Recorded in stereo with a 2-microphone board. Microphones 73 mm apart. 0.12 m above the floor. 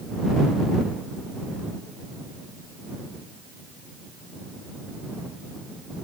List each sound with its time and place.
Only background noise.